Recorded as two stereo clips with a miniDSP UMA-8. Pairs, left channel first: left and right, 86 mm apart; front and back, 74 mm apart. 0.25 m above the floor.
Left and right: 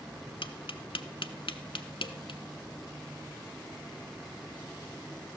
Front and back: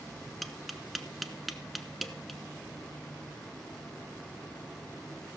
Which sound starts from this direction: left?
Tapping, at 0.4 s.